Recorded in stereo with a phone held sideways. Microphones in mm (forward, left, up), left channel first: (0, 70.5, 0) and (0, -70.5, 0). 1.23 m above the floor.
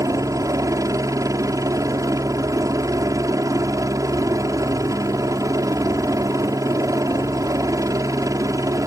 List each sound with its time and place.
0.0 s a helicopter: 25° right (ahead or behind)